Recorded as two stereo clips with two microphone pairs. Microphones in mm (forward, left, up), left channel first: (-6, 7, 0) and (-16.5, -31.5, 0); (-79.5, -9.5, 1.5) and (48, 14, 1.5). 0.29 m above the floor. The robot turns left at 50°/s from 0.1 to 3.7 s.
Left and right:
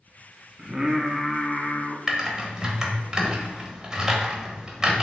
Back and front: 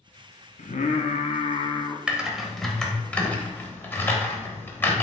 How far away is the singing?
About 0.6 m.